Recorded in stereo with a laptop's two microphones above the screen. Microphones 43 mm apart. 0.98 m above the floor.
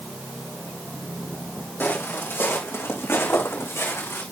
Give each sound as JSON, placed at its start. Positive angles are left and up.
{"t": 1.8, "sound": "footsteps", "side_deg": 55, "distance_m": 3.0}